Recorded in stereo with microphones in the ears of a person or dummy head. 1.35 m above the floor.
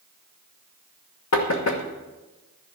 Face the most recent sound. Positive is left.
turn(degrees=75)  # may be behind; listen again after turning